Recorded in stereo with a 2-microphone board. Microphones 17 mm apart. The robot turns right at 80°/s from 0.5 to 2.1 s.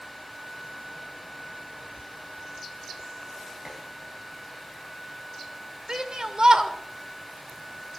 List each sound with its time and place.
3.6 s dishes clattering: 35° right (ahead or behind), 3.5 m
5.9 s a shout: 50° right (ahead or behind), 2 m